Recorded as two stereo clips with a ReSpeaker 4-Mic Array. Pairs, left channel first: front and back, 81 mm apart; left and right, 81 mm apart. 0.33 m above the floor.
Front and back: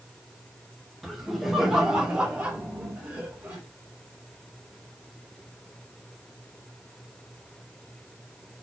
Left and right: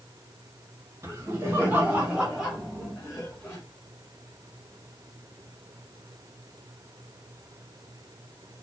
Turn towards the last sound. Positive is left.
turn(degrees=145)